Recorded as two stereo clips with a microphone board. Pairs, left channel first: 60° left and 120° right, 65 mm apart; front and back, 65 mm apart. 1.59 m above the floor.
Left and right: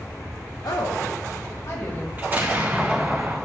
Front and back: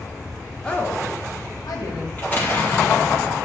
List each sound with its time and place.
0.6 s a woman speaking: 75° left, 1.5 m; by 2.1 s 10° left, 2.5 m
2.2 s an explosion: 60° right, 2.5 m